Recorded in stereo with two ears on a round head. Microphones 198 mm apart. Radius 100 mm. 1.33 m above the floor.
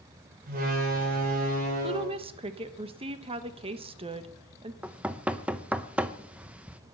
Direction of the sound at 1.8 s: 25° right (ahead or behind).